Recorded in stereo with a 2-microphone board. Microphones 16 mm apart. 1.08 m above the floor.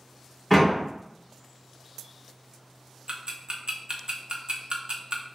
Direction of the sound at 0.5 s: 15° left (ahead or behind).